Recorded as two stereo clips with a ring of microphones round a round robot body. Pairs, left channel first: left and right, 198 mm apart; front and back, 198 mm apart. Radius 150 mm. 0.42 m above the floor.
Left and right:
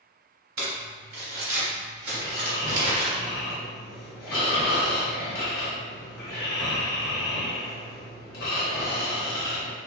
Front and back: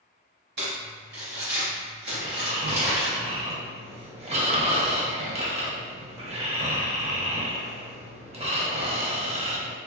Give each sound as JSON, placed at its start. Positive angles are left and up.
{"t": 0.6, "sound": "crumpling", "azimuth_deg": -130, "distance_m": 0.7}
{"t": 2.1, "sound": "snoring", "azimuth_deg": 125, "distance_m": 0.8}